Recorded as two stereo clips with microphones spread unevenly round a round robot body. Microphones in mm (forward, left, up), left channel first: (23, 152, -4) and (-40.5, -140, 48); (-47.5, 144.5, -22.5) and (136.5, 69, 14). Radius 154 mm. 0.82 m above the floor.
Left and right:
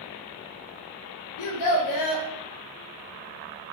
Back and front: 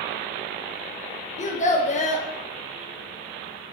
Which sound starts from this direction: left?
A child speaking, at 1.4 s.